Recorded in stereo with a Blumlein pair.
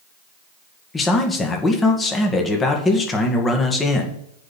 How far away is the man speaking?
About 1.9 m.